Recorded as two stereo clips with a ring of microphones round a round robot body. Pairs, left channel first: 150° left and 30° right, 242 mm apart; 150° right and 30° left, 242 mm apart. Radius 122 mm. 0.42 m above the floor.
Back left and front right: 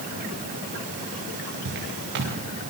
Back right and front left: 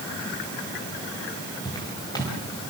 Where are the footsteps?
75° right, 8 m.